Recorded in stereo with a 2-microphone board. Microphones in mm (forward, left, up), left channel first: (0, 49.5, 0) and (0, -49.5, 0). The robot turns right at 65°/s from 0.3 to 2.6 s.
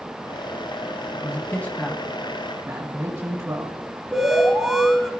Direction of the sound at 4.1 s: Centre (ahead or behind).